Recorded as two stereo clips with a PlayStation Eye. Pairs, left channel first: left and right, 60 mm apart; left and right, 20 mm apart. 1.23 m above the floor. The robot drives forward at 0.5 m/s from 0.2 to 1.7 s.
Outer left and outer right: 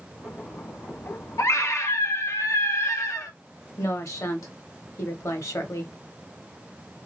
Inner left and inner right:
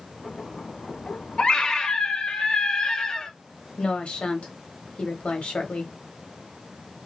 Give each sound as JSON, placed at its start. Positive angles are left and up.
{"t": 1.4, "sound": "a scream", "side_deg": 60, "distance_m": 0.9}
{"t": 3.8, "sound": "a woman speaking", "side_deg": 65, "distance_m": 1.1}